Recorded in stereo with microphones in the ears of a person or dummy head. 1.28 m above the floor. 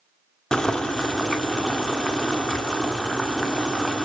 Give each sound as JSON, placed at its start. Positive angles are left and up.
{"t": 0.5, "sound": "boiling", "side_deg": 5, "distance_m": 1.5}